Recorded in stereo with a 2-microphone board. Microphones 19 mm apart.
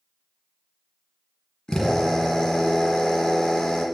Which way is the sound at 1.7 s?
45° left (ahead or behind).